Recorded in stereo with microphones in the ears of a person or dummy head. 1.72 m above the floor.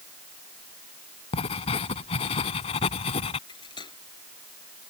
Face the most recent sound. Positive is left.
turn(degrees=20)  # may be behind; listen again after turning